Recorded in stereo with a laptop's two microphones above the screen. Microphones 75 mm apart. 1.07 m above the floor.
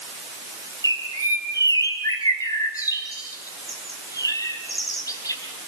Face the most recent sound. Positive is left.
turn(degrees=50)  # may be behind; listen again after turning